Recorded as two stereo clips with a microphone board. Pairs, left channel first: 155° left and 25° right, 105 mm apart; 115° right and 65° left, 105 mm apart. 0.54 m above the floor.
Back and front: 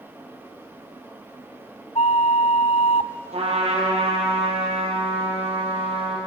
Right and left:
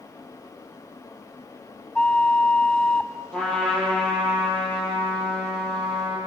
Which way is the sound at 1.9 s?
165° left.